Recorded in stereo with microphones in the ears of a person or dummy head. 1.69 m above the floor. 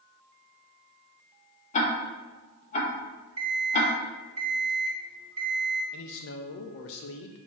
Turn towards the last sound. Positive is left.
turn(degrees=65)  # may be behind; listen again after turning